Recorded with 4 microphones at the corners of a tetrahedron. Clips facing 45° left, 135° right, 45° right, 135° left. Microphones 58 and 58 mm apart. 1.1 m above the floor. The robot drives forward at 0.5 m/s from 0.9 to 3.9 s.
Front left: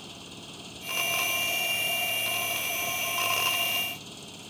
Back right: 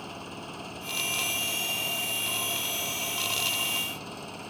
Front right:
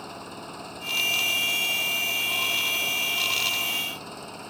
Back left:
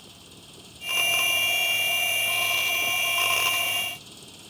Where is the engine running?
85° right.